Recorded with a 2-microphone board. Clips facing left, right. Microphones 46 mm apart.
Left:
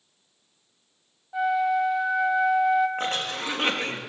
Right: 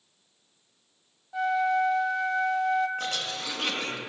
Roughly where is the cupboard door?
No cupboard door in this recording.